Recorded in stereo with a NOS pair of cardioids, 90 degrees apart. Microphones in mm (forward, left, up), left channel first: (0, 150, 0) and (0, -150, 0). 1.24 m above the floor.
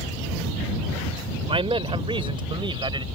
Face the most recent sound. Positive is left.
turn(degrees=-15)